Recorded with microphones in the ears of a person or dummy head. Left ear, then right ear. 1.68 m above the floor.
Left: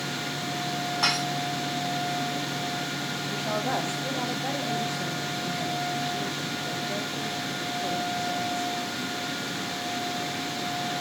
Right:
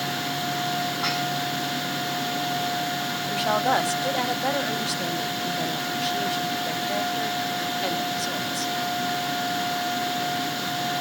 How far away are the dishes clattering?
About 7 m.